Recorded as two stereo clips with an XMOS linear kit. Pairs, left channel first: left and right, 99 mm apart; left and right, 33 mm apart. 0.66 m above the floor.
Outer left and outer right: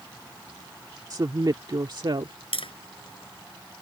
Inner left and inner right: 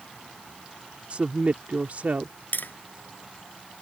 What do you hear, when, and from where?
1.1 s a woman speaking: 45° right (ahead or behind); by 2.3 s 60° right (ahead or behind)
2.5 s tapping: 75° left (ahead or behind)